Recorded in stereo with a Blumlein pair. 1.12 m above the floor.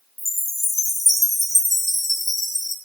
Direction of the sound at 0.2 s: 5° right.